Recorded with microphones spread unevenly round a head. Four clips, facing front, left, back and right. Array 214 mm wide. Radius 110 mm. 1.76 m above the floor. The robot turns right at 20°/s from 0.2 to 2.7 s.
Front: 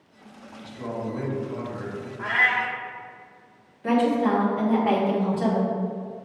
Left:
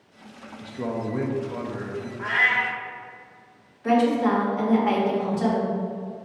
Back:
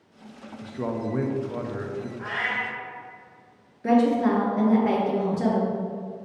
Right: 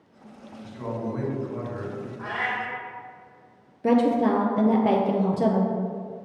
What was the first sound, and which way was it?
A man speaking, 140° left.